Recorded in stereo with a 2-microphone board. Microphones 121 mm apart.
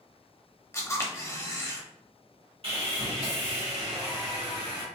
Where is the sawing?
50° right (ahead or behind), 1.6 m.